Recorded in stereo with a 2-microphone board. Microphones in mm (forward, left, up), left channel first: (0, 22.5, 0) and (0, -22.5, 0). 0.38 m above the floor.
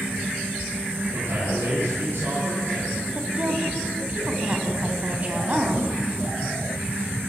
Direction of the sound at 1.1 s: 65° right (ahead or behind).